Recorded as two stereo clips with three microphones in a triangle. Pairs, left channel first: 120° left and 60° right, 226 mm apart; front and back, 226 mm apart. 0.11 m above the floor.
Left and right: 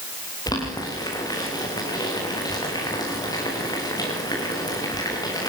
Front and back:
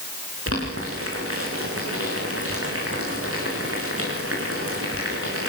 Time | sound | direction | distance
0.5 | boiling | 165° right | 7 m